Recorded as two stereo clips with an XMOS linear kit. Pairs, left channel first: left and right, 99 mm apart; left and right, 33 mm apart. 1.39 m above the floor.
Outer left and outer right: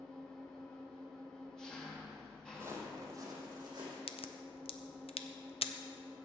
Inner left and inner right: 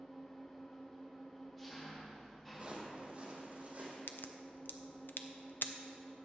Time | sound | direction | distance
0.0 | an engine running | 5° left (ahead or behind) | 1.8 m
2.5 | footsteps | 25° right (ahead or behind) | 2 m
4.1 | a crack | 80° left | 0.6 m